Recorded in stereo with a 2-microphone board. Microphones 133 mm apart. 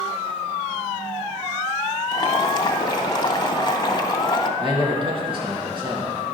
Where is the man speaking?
40° right (ahead or behind), 2 m.